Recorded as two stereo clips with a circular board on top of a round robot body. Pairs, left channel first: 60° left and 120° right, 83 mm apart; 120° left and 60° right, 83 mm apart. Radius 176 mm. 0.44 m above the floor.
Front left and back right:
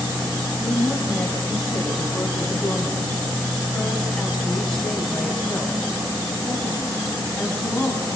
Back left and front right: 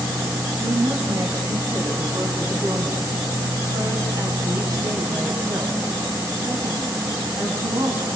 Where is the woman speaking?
20° right, 6 m.